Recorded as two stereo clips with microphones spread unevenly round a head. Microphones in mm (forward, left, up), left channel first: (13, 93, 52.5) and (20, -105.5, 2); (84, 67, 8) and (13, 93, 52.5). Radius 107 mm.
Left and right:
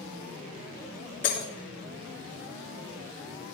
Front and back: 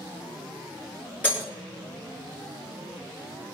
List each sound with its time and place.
1.2 s breaking glass: 55° left, 4.5 m